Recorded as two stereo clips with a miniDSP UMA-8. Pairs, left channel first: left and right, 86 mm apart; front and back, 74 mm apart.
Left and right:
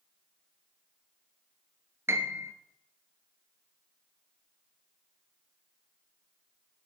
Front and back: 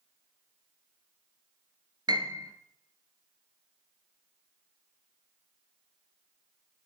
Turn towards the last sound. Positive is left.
turn(degrees=-150)